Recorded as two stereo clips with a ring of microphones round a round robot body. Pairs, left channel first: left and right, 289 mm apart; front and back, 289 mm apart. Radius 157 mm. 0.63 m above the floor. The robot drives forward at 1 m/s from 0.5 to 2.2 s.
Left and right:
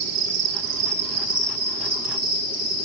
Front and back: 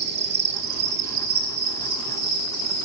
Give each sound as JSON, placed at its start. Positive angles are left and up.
{"t": 0.0, "sound": "an insect", "azimuth_deg": -125, "distance_m": 0.8}